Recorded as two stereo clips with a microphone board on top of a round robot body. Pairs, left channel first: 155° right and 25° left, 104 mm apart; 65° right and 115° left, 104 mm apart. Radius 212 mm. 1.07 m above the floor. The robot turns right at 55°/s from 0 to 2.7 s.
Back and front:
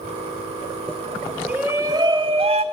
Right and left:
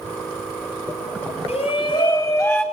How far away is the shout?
About 3.5 m.